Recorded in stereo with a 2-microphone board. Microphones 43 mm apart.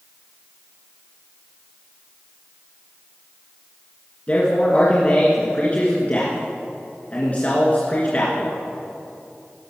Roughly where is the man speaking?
Left.